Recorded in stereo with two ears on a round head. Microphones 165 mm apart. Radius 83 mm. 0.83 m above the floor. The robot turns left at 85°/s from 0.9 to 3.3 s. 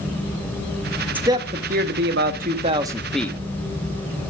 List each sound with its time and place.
1.1 s a man speaking: 10° right, 1.3 m; by 3.4 s 165° left, 1.3 m